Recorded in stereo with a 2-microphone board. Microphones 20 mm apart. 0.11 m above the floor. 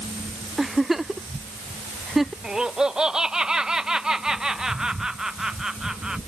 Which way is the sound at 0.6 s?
15° right (ahead or behind).